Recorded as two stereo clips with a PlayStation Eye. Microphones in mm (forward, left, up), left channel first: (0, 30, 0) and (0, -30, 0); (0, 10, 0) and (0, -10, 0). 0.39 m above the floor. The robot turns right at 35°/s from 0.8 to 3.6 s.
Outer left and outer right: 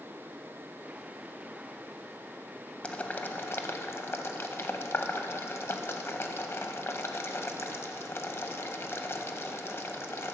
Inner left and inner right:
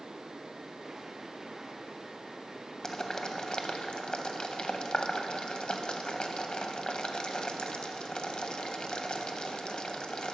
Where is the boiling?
20° left (ahead or behind), 0.6 m; by 10.3 s 45° left (ahead or behind), 0.6 m.